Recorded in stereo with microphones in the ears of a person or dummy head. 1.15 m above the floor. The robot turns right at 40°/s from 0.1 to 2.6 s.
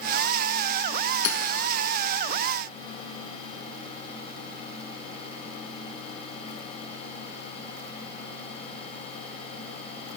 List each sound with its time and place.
1.2 s hammering: 60° left (ahead or behind), 0.7 m; by 1.4 s 55° left (ahead or behind), 0.7 m